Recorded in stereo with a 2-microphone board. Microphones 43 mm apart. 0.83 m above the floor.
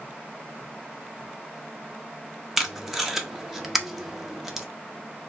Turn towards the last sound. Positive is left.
turn(degrees=-5)  # may be behind; listen again after turning